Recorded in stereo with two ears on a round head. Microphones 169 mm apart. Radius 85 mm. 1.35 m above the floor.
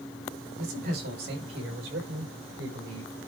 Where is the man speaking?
50° right (ahead or behind), 5 m; by 3.1 s 70° right (ahead or behind), 6.5 m.